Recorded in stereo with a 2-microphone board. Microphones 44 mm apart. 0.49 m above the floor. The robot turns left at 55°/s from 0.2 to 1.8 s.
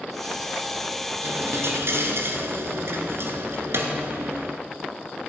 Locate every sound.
1.2 s a dropped coin: 75° right, 1.5 m; by 4.6 s 105° right, 1.5 m